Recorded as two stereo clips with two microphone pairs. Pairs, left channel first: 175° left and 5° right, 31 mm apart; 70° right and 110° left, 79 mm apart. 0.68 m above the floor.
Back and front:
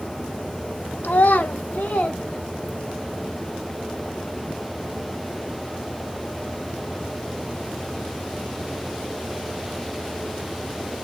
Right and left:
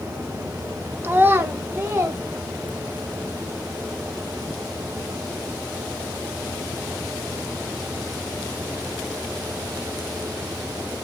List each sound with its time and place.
1.0 s a child speaking: straight behind, 0.8 m; by 3.1 s 175° left, 3 m